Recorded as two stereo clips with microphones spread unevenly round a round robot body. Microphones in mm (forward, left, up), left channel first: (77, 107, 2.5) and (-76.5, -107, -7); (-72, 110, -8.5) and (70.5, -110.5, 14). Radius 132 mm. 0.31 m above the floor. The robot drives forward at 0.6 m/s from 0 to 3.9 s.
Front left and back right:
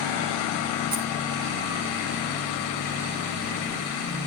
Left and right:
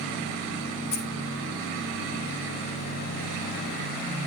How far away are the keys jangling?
About 4.5 m.